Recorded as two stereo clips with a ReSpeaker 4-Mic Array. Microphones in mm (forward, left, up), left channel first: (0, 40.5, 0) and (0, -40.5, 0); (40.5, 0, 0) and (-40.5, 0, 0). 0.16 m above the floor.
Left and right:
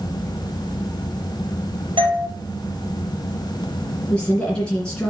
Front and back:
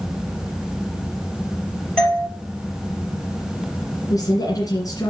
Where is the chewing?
I don't hear chewing.